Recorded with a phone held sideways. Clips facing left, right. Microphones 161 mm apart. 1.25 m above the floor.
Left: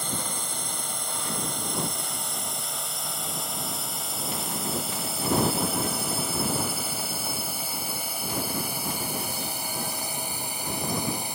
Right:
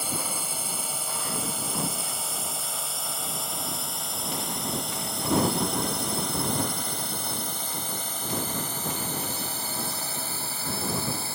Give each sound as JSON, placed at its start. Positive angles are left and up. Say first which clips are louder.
{"t": 0.0, "sound": "a drone", "louder": "even", "side_deg": -10}